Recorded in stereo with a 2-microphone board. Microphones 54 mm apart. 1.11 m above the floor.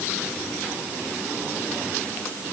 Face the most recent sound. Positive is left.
No sound to turn to.